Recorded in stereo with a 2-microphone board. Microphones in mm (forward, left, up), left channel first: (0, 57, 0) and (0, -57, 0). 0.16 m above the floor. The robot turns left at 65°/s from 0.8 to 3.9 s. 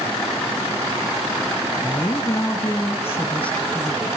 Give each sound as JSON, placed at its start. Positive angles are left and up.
{"t": 1.8, "sound": "a woman speaking", "side_deg": 20, "distance_m": 1.4}